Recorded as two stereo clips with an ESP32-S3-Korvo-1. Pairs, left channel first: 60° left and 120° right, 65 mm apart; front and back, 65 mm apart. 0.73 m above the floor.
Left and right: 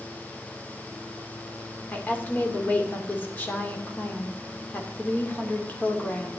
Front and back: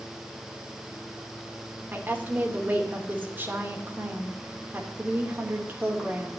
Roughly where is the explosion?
No explosion in this recording.